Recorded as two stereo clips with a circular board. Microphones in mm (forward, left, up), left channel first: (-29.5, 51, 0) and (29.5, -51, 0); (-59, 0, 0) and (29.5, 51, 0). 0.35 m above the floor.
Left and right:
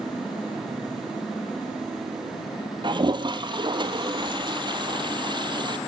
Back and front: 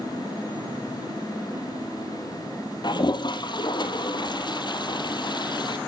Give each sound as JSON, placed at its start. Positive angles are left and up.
{"t": 2.8, "sound": "a toilet flushing", "azimuth_deg": -110, "distance_m": 1.9}